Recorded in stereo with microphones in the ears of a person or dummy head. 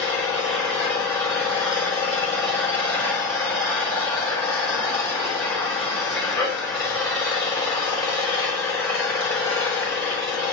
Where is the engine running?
15° left (ahead or behind), 5 m.